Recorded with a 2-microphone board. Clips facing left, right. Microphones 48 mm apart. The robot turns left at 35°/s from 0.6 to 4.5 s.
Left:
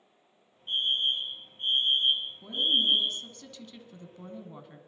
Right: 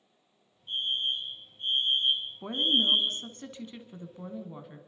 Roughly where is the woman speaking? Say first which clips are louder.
Right 1 dB; right.